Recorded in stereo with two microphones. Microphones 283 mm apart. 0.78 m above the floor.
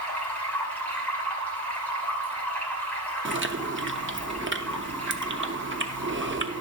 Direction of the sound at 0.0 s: 5° left (ahead or behind).